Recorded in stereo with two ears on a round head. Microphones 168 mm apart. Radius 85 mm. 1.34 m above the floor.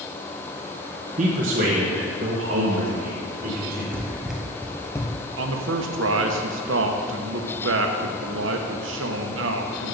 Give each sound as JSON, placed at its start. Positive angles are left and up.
{"t": 1.2, "sound": "a man speaking", "side_deg": -40, "distance_m": 1.0}
{"t": 3.9, "sound": "running footsteps", "side_deg": -15, "distance_m": 1.5}
{"t": 5.4, "sound": "a man speaking", "side_deg": -70, "distance_m": 1.2}